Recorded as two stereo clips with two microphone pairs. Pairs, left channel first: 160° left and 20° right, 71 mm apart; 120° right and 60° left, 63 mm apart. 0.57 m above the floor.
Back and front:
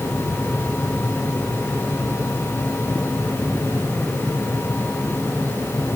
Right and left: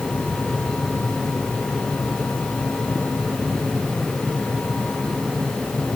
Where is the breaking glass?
I don't hear breaking glass.